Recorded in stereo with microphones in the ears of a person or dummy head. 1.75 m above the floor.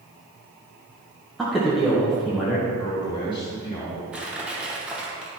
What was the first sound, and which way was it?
A man speaking, centre (ahead or behind).